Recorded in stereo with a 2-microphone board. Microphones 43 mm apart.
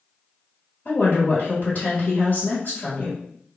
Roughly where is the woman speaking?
Left.